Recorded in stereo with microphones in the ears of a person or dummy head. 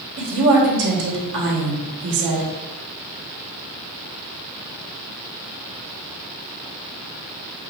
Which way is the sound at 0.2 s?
60° right (ahead or behind).